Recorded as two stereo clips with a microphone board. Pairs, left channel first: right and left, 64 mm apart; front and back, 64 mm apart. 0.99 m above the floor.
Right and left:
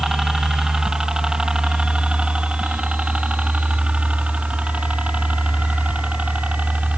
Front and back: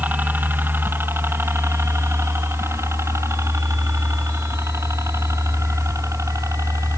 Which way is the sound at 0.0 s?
170° left.